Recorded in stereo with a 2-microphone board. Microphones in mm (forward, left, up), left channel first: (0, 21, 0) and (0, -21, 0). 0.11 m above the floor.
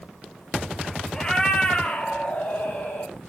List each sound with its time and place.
1.1 s a cat meowing: 15° left (ahead or behind), 1.0 m; by 3.1 s 45° left (ahead or behind), 2 m